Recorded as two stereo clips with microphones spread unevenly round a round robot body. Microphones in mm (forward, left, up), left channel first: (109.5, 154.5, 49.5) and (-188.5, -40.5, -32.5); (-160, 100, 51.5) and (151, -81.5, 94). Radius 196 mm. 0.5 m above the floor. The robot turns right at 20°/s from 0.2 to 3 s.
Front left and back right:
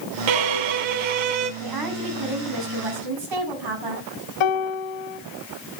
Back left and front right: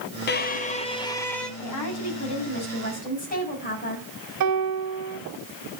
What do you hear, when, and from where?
0.3 s a violin: 145° right, 1.1 m; by 1.5 s 120° right, 1.1 m
1.6 s a woman speaking: 170° right, 5 m; by 4.1 s 145° right, 5 m
4.4 s a piano: 15° left, 1.3 m